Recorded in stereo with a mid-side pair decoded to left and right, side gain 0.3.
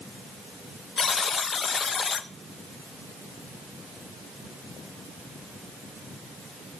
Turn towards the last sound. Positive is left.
turn(degrees=60)